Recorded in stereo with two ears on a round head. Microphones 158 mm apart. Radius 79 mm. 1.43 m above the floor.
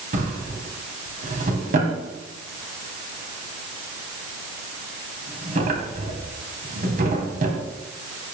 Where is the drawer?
50° right (ahead or behind), 2.5 m.